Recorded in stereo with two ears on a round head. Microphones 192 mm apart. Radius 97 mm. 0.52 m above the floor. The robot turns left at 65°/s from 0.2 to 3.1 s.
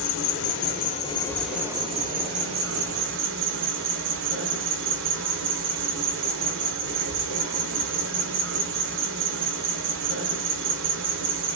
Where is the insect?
85° left, 1.0 m; by 11.6 s 105° right, 1.0 m.